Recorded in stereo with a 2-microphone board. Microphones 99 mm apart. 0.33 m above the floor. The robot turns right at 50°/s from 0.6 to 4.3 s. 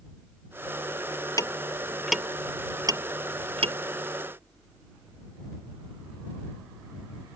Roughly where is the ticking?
Left.